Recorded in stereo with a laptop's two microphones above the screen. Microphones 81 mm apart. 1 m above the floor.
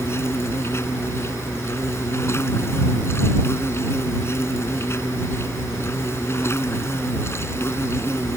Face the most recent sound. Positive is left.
turn(degrees=35)  # may be behind; listen again after turning